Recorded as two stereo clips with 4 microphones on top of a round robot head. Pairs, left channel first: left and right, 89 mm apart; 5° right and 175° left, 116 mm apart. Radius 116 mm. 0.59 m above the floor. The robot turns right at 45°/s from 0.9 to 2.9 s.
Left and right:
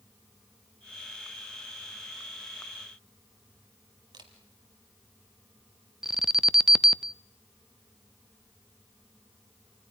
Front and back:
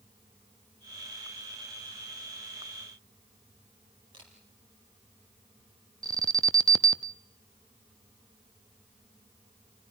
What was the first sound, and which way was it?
A camera shutter, 125° right.